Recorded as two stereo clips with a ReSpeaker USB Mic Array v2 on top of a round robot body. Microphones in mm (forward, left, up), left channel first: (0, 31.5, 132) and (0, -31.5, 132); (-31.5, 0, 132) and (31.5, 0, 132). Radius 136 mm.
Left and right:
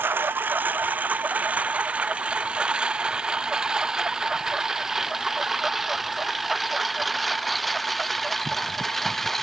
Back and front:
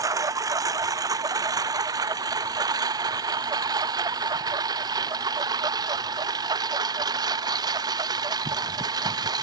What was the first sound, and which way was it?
A lawn mower, 30° right.